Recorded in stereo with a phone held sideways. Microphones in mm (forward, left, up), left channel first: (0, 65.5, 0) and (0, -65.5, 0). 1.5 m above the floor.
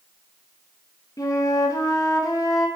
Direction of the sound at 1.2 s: 25° left (ahead or behind).